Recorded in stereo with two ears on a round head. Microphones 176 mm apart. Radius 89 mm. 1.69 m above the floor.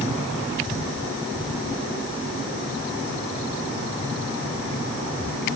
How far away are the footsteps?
No footsteps in this recording.